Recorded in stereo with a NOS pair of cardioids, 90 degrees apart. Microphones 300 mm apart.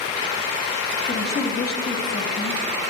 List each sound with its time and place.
1.1 s a woman speaking: 35° left, 1.7 m